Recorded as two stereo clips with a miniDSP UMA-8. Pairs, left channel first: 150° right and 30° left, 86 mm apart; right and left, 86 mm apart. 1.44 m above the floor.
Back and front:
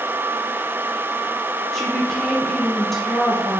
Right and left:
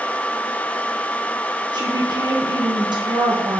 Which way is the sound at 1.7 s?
125° left.